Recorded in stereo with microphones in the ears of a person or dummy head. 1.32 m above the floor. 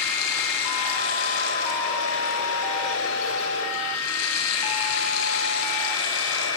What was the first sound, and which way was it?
Running water, 80° left.